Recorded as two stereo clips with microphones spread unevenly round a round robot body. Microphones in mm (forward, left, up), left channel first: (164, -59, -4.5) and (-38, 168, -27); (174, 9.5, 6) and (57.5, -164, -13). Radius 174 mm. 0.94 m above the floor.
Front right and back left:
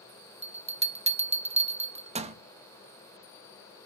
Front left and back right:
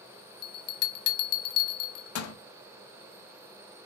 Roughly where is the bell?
Ahead left.